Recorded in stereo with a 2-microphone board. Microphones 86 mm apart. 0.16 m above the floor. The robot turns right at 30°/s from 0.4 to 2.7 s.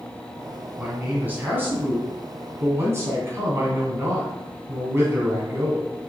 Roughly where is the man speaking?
Centre.